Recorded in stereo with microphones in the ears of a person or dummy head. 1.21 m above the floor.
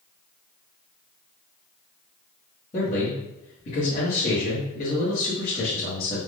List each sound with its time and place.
2.7 s a man speaking: 35° left (ahead or behind), 1.8 m